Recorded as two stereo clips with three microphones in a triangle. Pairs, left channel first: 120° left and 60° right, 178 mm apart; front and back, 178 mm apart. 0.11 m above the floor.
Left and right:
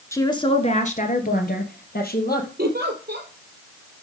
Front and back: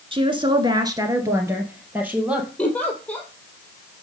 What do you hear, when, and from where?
0.1 s a woman speaking: 175° left, 1.1 m; by 2.5 s 100° left, 2.5 m
2.6 s a giggle: 80° right, 1.8 m